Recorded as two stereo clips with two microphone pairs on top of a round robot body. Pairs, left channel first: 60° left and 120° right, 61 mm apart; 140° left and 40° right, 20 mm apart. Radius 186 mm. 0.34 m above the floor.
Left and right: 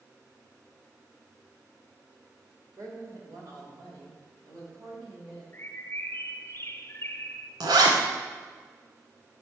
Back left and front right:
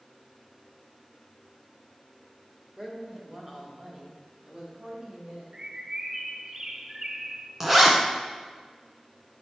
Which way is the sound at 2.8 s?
120° right.